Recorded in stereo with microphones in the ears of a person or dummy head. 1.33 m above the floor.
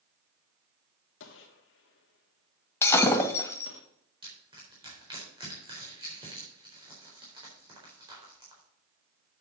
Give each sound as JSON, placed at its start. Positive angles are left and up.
{"t": 1.2, "sound": "a gunshot", "side_deg": 75, "distance_m": 1.6}
{"t": 2.8, "sound": "breaking glass", "side_deg": 20, "distance_m": 1.9}
{"t": 4.2, "sound": "crushing", "side_deg": -30, "distance_m": 4.0}